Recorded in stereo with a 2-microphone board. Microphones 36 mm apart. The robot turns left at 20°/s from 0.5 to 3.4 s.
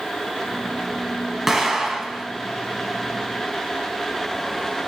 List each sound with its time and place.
1.5 s an explosion: 10° right (ahead or behind), 1.4 m; by 2.2 s 5° right (ahead or behind), 1.4 m